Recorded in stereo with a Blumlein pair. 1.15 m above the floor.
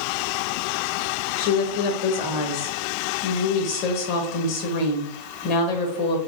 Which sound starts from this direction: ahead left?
A woman speaking, at 1.4 s.